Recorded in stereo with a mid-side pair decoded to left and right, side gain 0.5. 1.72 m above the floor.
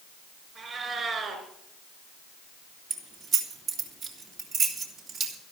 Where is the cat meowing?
50° right, 5 m.